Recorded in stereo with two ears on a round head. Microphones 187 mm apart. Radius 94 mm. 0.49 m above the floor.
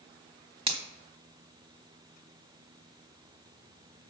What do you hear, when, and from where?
0.7 s a finger snap: 30° right (ahead or behind), 1.5 m